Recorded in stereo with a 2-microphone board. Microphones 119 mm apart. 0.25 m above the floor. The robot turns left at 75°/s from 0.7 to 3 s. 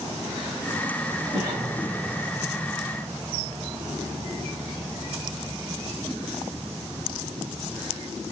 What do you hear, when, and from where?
1.3 s a cough: 125° right, 2 m; by 1.8 s 155° right, 2 m